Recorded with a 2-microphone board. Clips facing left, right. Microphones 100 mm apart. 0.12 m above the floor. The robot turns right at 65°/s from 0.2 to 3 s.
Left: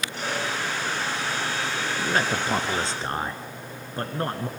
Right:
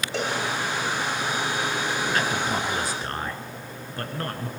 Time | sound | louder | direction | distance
0.1 | a cowbell | right 4 dB | 80° right | 4.5 m
2.0 | a man speaking | left 3 dB | 70° left | 1.5 m